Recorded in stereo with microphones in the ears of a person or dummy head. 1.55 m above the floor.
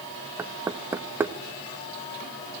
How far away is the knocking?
About 1.2 m.